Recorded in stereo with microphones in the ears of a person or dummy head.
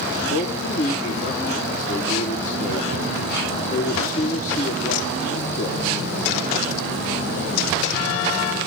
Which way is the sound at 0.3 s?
45° left (ahead or behind).